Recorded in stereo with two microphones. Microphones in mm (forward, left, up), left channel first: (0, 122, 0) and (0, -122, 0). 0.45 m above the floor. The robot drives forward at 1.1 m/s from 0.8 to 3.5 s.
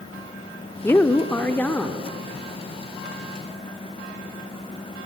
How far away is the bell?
No bell in this recording.